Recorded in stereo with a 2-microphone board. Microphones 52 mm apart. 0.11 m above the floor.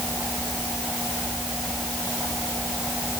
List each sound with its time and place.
Only background noise.